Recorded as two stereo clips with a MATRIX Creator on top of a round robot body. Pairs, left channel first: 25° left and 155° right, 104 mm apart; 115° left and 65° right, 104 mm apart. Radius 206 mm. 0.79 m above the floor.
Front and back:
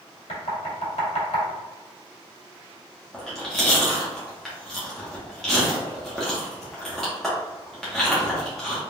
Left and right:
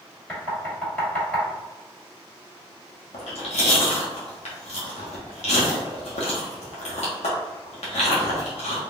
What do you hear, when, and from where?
0.3 s knocking: 30° left, 1.9 m
3.1 s chewing: 110° left, 0.7 m